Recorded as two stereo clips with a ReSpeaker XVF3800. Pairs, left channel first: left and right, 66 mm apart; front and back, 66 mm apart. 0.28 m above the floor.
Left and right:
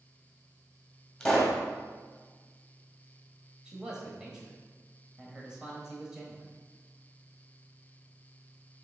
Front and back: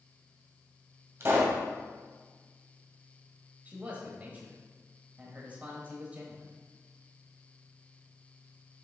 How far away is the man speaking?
About 1.1 m.